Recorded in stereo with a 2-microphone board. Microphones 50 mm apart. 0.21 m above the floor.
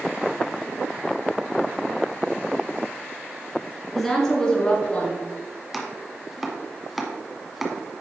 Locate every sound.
4.0 s a woman speaking: 5° left (ahead or behind), 2.5 m; by 5.2 s 35° left (ahead or behind), 2.5 m
5.7 s chopping: 5° right (ahead or behind), 1.3 m